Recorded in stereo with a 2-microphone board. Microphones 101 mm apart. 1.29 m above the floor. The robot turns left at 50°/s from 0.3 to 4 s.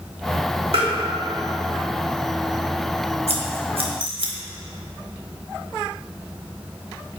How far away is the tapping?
About 1.6 m.